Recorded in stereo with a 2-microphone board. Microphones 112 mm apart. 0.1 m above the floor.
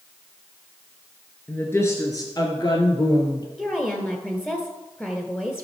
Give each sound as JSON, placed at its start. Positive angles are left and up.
{"t": 1.5, "sound": "a woman speaking", "side_deg": 15, "distance_m": 1.4}
{"t": 3.6, "sound": "a woman speaking", "side_deg": 15, "distance_m": 1.4}